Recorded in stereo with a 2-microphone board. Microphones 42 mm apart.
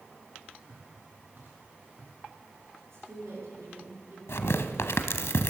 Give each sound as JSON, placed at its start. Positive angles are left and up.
{"t": 0.7, "sound": "footsteps", "side_deg": -55, "distance_m": 6.5}
{"t": 2.8, "sound": "a woman speaking", "side_deg": -80, "distance_m": 8.0}
{"t": 4.3, "sound": "tearing paper", "side_deg": 80, "distance_m": 0.9}